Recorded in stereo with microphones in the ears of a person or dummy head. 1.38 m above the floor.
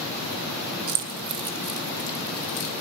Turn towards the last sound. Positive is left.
turn(degrees=35)  # may be behind; listen again after turning